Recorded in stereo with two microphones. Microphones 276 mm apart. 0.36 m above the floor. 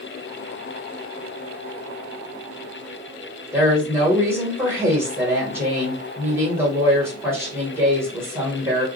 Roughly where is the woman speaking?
Centre.